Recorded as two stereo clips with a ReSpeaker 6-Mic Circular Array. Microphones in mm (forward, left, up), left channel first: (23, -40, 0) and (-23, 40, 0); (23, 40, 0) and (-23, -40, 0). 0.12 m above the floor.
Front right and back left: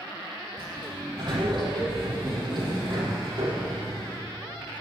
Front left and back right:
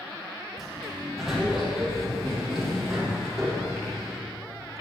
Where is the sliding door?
155° left, 5 m.